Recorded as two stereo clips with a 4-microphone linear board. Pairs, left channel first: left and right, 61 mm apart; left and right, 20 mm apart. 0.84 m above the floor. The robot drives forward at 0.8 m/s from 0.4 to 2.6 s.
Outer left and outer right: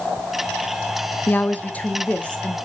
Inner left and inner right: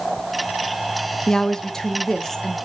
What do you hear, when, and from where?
1.3 s a woman speaking: 35° left (ahead or behind), 0.8 m; by 2.6 s 15° left (ahead or behind), 1.7 m